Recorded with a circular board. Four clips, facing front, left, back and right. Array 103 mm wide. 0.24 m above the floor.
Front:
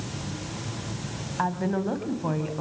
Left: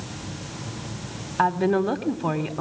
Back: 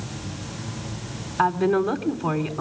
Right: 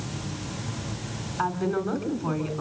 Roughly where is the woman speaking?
Left.